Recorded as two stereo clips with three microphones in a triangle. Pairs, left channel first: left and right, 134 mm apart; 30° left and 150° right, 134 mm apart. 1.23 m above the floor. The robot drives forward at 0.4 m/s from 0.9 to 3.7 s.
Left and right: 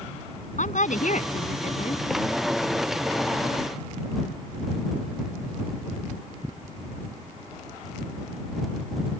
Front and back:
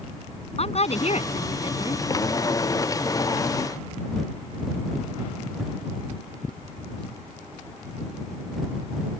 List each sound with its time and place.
0.6 s a woman speaking: 70° left